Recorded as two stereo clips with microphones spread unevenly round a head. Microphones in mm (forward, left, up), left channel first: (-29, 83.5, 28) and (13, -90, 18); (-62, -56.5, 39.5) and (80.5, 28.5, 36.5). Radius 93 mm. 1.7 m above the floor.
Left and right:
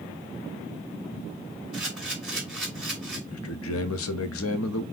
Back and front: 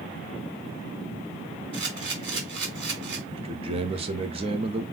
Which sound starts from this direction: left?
A man speaking, at 3.3 s.